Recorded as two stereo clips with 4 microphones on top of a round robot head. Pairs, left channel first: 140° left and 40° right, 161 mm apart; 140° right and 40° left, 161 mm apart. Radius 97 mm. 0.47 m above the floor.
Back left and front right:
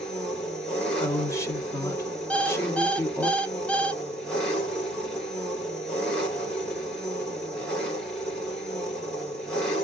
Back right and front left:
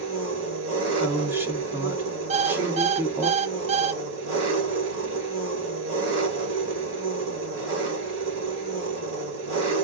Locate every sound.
0.0 s an engine running: 55° left, 2.5 m
1.0 s a woman speaking: 100° left, 0.9 m
2.3 s an alarm clock: 60° left, 0.6 m